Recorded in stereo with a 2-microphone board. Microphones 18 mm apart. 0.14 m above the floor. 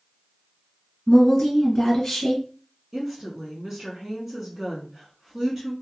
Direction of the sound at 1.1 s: 30° left (ahead or behind).